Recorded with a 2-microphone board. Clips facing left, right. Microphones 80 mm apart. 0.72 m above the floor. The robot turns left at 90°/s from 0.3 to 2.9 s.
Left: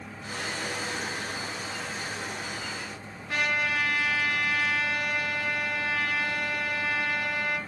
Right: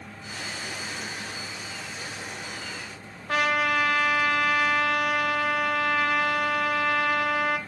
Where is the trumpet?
65° right (ahead or behind), 0.6 m.